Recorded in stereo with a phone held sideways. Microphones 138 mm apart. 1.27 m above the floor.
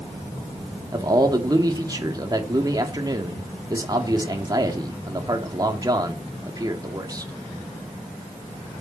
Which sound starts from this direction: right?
A man speaking, at 0.9 s.